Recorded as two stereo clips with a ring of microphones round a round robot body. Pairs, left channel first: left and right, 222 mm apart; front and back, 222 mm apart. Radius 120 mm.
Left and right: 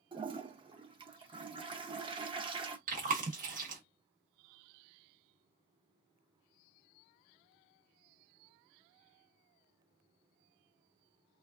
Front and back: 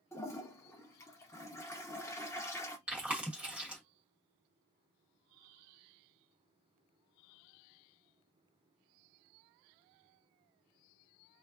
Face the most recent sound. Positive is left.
turn(degrees=-100)